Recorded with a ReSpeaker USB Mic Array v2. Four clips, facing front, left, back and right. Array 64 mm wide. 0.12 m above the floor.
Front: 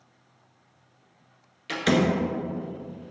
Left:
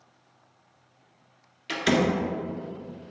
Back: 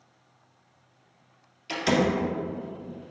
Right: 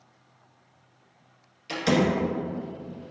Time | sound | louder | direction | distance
1.7 | a door slam | even, front 1 dB | 50° left | 1.3 m